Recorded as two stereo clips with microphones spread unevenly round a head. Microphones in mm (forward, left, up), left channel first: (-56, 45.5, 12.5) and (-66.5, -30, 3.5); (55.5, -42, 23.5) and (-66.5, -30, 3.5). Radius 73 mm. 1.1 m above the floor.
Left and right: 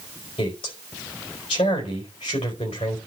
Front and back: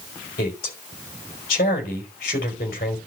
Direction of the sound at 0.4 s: 30° left.